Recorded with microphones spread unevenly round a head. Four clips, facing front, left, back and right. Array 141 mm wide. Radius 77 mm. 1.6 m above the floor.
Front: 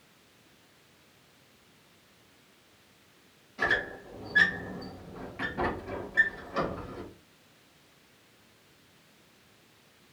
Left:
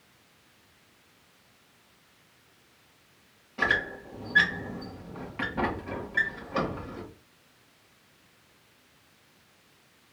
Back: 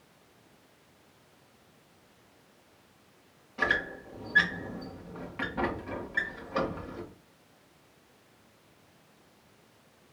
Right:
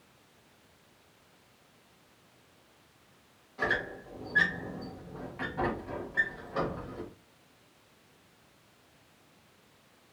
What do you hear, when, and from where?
3.6 s a squeak: 115° left, 1.5 m